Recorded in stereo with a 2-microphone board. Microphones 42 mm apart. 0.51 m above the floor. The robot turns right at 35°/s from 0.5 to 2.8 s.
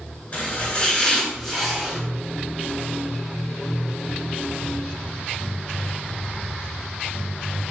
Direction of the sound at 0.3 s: 35° left (ahead or behind).